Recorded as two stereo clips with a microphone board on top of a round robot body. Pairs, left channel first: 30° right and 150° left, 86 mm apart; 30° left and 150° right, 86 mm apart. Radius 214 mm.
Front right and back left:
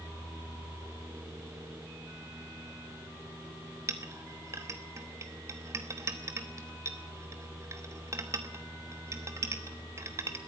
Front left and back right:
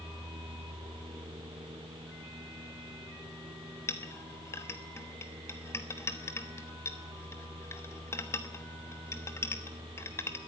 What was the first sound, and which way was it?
A clink, 90° left.